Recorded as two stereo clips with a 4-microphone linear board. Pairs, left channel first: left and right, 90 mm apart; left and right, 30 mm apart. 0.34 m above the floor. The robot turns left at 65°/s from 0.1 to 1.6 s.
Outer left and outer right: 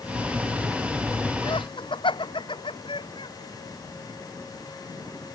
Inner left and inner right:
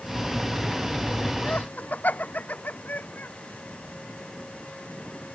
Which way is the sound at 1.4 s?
60° left (ahead or behind).